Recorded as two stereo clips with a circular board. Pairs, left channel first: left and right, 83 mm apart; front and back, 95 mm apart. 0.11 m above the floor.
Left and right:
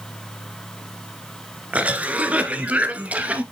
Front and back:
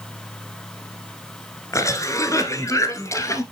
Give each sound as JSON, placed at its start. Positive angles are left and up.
{"t": 1.7, "sound": "a cough", "azimuth_deg": -25, "distance_m": 1.3}